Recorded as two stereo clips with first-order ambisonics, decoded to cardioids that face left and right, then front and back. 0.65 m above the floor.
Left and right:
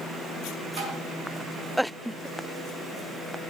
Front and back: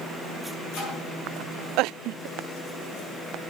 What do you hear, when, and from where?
0.8 s tapping: 90° right, 5 m